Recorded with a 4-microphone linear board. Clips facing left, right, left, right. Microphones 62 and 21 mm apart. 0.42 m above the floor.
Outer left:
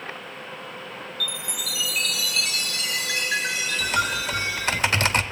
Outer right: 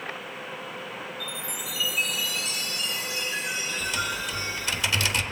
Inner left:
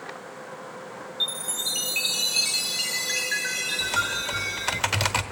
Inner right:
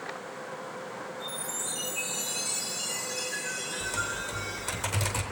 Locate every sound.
1.2 s a chime: 80° left, 1.4 m
3.8 s typing on a keyboard: 50° left (ahead or behind), 0.8 m